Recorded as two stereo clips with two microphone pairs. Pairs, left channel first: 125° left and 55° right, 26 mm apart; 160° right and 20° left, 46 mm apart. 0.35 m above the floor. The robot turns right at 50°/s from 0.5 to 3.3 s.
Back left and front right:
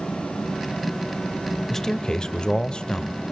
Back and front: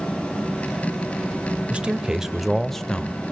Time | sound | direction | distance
1.7 | a man speaking | 65° left | 1.1 m